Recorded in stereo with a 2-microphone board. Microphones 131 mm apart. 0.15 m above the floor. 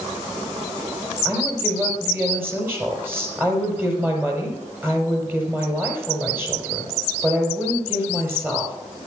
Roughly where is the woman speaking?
Centre.